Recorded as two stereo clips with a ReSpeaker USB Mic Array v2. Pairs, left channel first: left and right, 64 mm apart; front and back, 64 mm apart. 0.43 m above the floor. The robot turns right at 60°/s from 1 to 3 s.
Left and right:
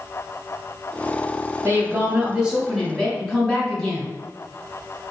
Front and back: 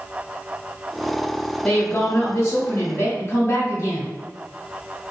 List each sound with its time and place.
1.6 s a woman speaking: 70° right, 1.5 m; by 4.1 s 10° left, 1.5 m